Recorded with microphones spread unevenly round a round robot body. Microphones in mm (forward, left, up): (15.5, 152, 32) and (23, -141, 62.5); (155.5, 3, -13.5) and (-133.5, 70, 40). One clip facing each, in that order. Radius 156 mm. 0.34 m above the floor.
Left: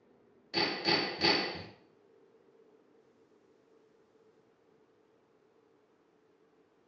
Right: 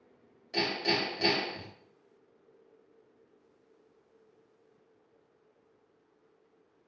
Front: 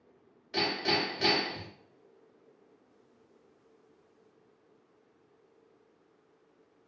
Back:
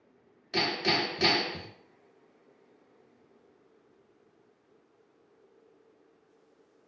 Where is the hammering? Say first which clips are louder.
Right 1 dB, back 1 dB; 155° left, 1.4 m.